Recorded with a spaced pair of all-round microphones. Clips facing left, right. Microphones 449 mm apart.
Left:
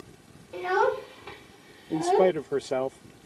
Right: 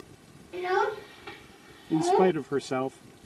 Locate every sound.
0.5 s a child speaking: 40° right (ahead or behind); by 2.3 s 20° right (ahead or behind)
1.9 s a man speaking: 25° right (ahead or behind)